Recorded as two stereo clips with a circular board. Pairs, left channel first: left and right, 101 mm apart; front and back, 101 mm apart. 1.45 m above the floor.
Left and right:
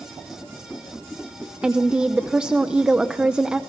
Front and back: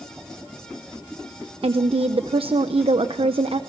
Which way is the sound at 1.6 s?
170° right.